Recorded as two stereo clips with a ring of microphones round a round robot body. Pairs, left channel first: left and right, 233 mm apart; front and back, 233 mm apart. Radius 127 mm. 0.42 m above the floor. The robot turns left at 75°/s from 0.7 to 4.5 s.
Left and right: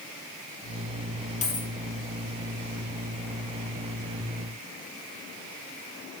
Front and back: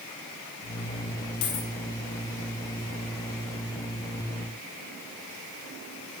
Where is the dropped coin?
30° left, 2.0 m; by 1.7 s 10° left, 2.0 m.